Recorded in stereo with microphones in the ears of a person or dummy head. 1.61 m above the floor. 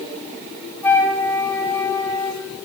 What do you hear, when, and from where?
0.8 s a flute: 15° left (ahead or behind), 2.0 m